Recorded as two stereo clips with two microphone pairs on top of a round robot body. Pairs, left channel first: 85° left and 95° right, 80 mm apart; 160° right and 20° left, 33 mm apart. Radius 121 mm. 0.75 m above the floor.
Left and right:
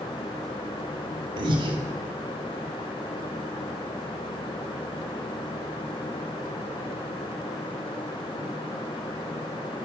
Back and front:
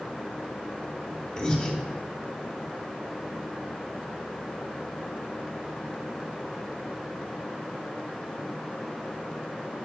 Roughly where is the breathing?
Right.